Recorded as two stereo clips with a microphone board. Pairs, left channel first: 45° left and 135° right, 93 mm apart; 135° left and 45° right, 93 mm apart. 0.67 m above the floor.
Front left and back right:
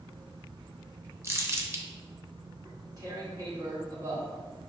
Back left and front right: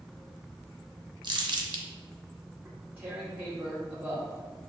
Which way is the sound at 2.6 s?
110° right.